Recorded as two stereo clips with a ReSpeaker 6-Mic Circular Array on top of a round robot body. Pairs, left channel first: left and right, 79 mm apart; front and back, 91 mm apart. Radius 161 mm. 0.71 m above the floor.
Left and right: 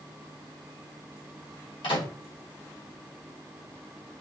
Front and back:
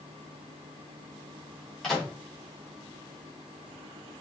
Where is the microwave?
85° left, 1.7 m.